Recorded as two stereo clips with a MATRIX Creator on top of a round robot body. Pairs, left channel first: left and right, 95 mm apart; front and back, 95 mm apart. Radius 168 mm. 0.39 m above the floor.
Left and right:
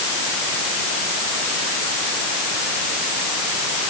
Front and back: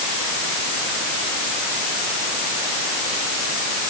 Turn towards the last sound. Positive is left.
No sound to turn to.